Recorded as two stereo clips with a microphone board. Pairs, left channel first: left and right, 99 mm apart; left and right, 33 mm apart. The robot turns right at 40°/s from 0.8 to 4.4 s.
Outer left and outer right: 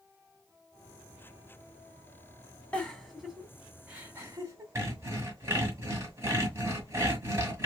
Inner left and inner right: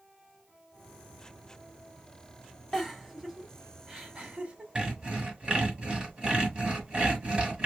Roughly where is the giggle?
Centre.